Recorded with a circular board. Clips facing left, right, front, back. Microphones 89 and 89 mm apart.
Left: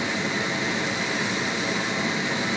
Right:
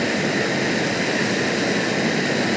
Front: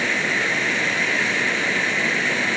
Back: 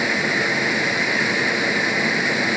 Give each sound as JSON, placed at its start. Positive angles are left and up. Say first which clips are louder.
{"t": 0.0, "sound": "running water", "louder": "right 6 dB, back 2 dB", "azimuth_deg": -105, "distance_m": 0.8}